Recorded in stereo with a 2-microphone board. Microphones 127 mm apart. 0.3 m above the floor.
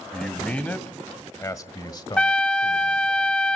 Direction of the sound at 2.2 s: 10° left (ahead or behind).